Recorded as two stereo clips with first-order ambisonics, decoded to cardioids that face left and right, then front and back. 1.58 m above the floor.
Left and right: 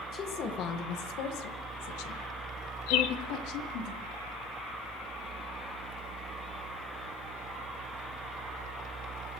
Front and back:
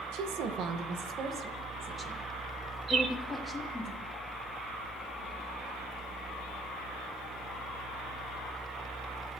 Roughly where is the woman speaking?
Behind left.